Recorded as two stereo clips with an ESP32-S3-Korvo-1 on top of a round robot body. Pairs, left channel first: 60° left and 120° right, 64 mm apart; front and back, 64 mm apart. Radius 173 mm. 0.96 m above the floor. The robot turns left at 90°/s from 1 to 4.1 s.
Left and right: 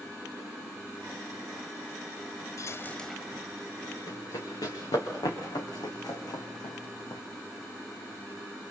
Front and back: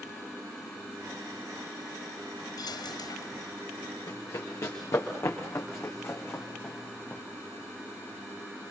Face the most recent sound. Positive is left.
turn(degrees=65)